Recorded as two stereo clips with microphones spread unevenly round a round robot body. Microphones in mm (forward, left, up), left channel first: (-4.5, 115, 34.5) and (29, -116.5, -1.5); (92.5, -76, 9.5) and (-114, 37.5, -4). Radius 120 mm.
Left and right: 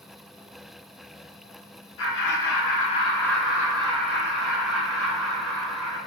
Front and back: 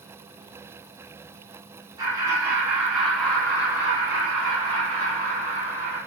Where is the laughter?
85° left, 0.9 m; by 6.0 s 95° right, 1.6 m.